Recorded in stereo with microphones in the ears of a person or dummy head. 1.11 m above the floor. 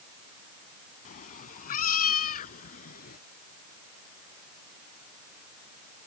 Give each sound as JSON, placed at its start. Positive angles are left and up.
{"t": 1.1, "sound": "a cat meowing", "side_deg": 35}